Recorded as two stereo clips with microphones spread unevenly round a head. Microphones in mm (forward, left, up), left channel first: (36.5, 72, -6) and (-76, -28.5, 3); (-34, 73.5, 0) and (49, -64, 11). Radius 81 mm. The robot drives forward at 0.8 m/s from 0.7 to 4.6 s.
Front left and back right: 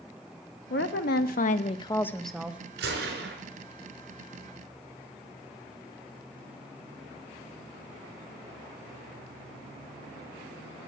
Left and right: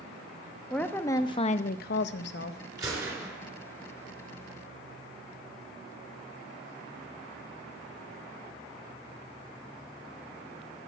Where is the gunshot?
130° right, 4.5 m; by 3.4 s 135° right, 4.5 m.